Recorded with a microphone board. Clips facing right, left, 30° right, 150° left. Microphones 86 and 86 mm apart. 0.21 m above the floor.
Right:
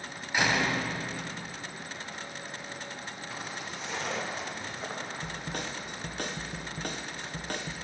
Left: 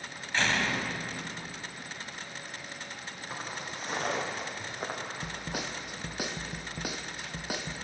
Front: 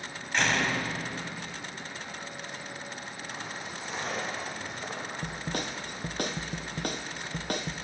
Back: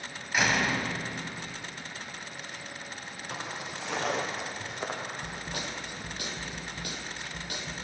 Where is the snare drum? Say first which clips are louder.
Even, front 3 dB; 10° left, 1.1 m.